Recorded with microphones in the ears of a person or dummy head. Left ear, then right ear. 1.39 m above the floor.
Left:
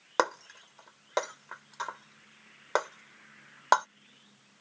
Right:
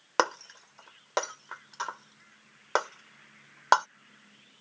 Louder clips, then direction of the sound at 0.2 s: Right 1 dB; 10° right (ahead or behind).